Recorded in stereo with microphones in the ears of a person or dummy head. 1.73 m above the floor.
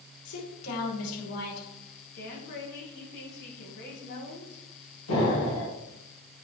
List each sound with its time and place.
0.2 s a woman speaking: 75° left (ahead or behind), 5 m
2.1 s a woman speaking: 55° left (ahead or behind), 2.5 m
5.1 s an explosion: 85° left, 3 m